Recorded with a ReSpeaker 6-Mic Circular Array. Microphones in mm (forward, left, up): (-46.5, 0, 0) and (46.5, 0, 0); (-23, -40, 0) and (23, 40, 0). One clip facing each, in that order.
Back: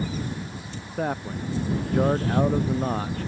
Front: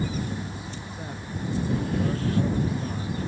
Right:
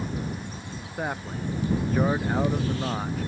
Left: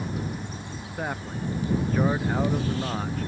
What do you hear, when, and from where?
1.0 s a man speaking: 155° left